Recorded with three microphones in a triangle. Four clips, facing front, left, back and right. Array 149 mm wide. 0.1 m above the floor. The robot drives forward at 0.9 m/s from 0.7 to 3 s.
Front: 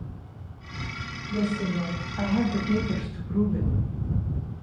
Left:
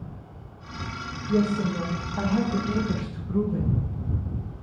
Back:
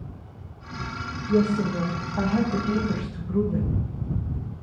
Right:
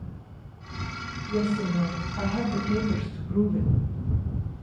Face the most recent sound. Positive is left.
turn(degrees=155)